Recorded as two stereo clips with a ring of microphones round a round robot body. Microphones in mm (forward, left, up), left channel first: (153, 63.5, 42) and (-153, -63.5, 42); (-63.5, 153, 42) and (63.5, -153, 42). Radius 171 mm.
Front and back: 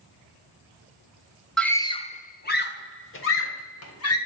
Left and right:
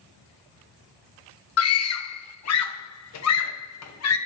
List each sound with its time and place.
1.6 s a scream: 110° left, 1.0 m; by 4.2 s 70° left, 3 m